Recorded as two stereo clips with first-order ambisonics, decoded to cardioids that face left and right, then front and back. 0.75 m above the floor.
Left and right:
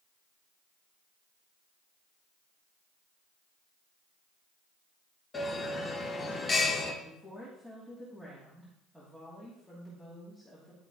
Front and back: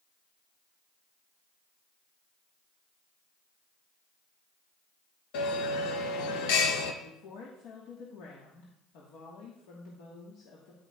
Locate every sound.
5.3 s a bell: 15° left, 0.9 m
7.0 s a woman speaking: 5° left, 1.4 m